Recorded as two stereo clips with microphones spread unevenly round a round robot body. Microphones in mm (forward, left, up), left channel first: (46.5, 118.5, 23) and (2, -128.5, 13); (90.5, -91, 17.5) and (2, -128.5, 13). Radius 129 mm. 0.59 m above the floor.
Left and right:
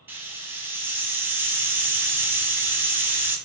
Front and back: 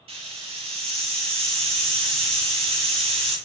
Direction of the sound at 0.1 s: Straight behind.